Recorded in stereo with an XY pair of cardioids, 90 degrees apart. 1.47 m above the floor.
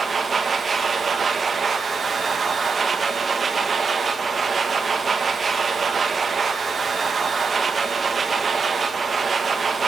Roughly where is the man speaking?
No man speaking in this recording.